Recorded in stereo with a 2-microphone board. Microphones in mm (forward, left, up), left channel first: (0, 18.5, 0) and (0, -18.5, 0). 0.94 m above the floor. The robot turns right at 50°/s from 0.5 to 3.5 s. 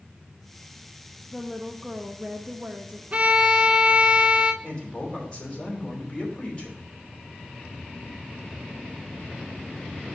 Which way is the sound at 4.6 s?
30° left (ahead or behind).